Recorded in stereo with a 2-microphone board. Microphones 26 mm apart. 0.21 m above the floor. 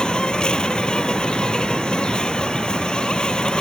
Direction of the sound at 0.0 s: 40° left (ahead or behind).